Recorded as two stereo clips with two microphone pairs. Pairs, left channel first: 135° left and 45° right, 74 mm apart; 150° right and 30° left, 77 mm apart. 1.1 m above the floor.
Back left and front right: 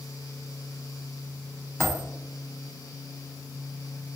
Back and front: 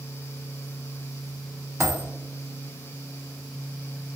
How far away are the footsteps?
No footsteps in this recording.